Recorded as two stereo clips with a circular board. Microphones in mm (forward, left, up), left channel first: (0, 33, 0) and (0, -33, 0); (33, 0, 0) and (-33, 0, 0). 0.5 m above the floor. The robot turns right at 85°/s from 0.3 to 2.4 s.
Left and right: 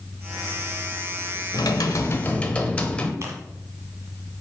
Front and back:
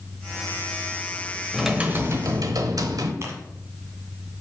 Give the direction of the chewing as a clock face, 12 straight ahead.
4 o'clock.